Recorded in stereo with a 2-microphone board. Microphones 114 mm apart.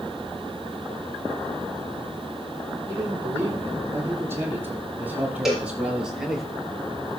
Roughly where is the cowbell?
Centre.